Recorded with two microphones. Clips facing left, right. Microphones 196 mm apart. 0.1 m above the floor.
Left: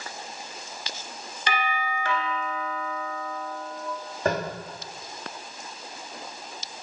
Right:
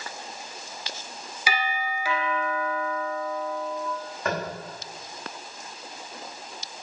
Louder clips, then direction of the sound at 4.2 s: Left 3 dB; 30° left (ahead or behind).